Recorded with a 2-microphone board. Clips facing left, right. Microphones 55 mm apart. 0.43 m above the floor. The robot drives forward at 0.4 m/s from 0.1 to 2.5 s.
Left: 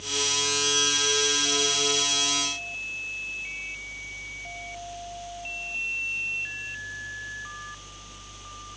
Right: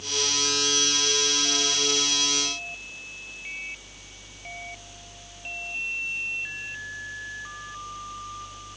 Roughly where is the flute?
I don't hear a flute.